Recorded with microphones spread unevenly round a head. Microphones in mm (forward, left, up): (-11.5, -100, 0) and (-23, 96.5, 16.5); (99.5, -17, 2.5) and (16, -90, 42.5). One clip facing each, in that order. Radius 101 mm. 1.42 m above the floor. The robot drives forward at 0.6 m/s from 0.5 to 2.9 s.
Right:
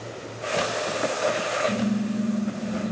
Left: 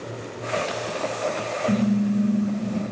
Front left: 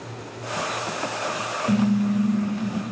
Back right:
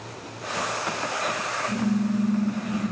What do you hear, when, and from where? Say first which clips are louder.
1.7 s a car horn: left 6 dB, front left 4 dB; 50° left, 4.5 m; by 2.8 s 60° left, 4.5 m